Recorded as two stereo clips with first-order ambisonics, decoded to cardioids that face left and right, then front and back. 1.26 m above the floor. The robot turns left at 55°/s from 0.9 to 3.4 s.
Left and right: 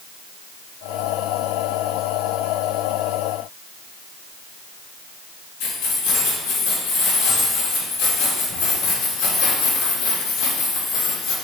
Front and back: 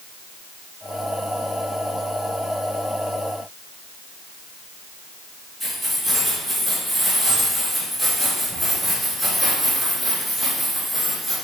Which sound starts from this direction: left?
Keys jangling, at 5.6 s.